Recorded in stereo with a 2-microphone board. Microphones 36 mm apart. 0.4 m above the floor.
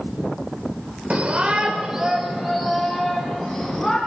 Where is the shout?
40° right (ahead or behind), 1.2 m; by 4.0 s 5° left (ahead or behind), 3.5 m.